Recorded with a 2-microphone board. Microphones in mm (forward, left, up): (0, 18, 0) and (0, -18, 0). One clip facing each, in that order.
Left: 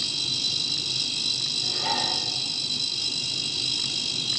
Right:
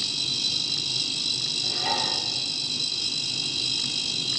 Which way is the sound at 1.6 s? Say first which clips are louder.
Even; centre (ahead or behind).